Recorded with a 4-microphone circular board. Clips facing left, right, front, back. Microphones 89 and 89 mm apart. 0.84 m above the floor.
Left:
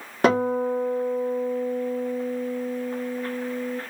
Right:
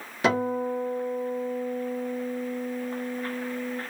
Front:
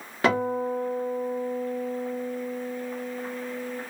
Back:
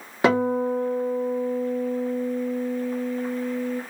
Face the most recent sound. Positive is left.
turn(degrees=115)